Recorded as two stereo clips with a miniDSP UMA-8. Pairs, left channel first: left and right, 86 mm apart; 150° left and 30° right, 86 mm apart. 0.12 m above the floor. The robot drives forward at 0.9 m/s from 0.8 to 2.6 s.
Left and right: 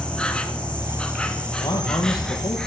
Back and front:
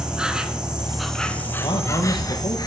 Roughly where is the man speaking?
Behind left.